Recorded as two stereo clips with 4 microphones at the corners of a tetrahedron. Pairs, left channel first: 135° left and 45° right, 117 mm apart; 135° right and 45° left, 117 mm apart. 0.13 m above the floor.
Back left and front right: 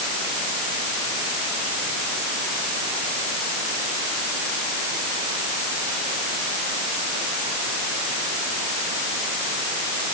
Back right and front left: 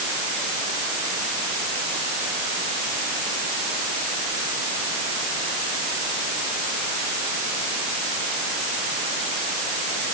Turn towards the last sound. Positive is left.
No sound to turn to.